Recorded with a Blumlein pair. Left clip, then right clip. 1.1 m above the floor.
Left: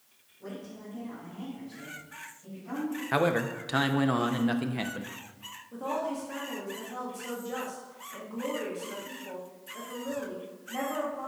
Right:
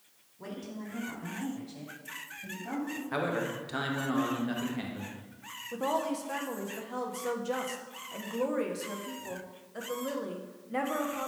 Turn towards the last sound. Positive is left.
turn(degrees=-70)